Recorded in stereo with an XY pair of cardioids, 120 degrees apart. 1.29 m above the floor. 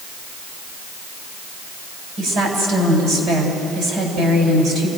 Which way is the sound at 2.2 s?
65° right.